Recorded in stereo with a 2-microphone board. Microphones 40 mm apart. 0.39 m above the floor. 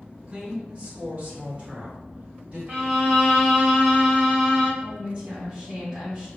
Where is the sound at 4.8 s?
20° right (ahead or behind), 1.8 m.